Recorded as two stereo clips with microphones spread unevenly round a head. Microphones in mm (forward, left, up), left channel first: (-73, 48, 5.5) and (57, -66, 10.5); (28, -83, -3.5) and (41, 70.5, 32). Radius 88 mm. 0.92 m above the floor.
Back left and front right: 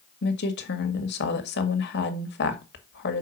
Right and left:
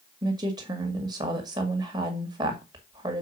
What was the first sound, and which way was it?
A woman speaking, 155° left.